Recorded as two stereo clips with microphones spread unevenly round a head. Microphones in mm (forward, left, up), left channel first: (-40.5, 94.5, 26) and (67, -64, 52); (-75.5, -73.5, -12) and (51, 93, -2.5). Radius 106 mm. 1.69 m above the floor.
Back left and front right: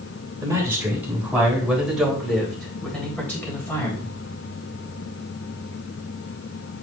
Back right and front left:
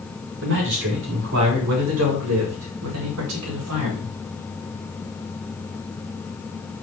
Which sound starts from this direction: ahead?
A man speaking, at 0.4 s.